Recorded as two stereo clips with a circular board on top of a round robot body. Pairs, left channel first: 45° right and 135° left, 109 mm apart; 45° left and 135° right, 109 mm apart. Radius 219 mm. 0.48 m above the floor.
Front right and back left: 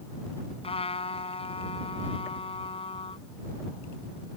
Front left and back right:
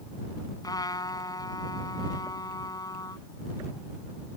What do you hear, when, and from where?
0.6 s a trumpet: 10° right